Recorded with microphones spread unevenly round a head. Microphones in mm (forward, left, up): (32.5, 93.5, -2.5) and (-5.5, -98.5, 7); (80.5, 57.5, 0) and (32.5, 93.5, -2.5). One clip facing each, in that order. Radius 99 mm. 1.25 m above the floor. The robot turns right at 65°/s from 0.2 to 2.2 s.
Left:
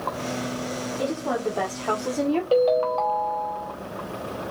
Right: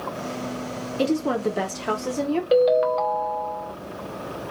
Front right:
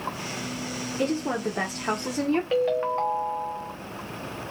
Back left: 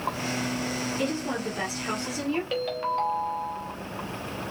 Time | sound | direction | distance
1.0 | a woman speaking | 90° right | 0.6 m
2.5 | a ringtone | 75° right | 0.7 m